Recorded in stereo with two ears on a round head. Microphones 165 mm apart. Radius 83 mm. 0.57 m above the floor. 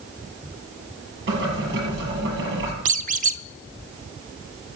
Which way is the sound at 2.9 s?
45° right (ahead or behind).